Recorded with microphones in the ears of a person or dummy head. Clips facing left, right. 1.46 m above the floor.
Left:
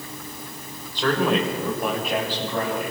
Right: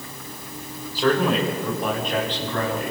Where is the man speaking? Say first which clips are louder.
Right 1 dB; 10° right (ahead or behind), 2.5 m; by 2.9 s 5° left (ahead or behind), 4.5 m.